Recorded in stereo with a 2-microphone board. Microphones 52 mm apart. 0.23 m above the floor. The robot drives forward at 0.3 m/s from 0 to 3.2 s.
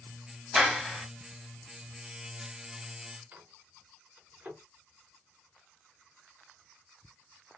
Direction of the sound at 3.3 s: 30° right (ahead or behind).